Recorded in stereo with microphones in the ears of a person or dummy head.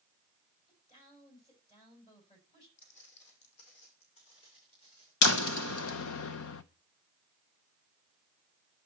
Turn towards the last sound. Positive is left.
turn(degrees=70)  # may be behind; listen again after turning